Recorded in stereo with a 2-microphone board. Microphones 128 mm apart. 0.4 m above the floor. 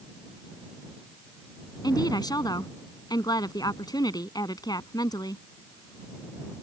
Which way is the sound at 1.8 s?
30° left (ahead or behind).